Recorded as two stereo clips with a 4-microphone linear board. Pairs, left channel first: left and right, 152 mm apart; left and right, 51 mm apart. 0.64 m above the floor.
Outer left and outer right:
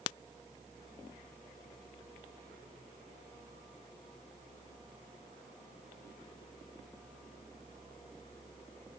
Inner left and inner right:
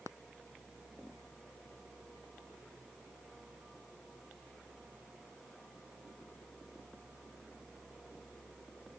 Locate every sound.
Only background noise.